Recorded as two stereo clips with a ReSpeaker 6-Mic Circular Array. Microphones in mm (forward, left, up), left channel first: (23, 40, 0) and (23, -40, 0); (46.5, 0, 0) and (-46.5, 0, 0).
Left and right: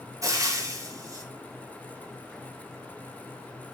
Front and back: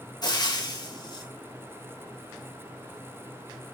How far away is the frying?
About 1.8 m.